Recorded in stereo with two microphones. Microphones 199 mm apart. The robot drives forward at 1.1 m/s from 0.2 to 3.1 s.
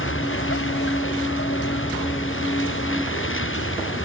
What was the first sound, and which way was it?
A vehicle, 85° left.